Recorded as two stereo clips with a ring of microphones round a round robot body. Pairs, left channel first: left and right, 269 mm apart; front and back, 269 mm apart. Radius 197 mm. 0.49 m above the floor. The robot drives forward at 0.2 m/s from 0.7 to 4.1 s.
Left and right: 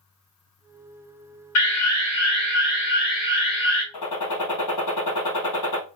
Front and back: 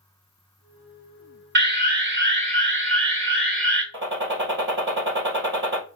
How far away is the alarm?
About 2.5 m.